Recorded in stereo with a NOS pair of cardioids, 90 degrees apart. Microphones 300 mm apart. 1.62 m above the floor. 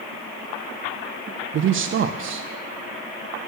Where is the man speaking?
40° right, 0.5 m.